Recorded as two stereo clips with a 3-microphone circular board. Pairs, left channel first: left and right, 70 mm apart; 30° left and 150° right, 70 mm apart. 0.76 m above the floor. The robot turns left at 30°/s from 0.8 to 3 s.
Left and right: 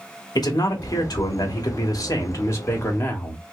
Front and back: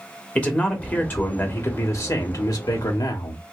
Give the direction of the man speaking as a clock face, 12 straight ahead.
9 o'clock.